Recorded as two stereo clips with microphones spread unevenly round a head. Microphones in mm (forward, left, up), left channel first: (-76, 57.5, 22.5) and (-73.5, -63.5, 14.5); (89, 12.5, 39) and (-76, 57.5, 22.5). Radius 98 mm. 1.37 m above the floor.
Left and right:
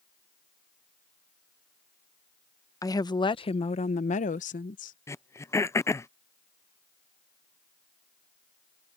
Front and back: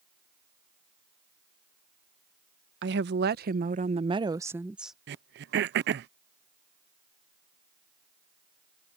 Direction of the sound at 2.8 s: 150° left.